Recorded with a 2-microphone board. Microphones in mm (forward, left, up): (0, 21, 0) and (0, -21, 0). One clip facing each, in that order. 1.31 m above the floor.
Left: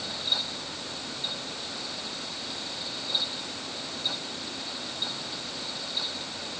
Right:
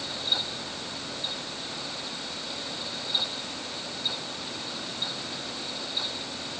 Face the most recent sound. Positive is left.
No sound to turn to.